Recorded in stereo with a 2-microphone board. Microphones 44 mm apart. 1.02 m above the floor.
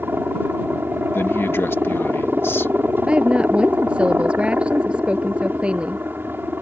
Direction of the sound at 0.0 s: 50° right (ahead or behind).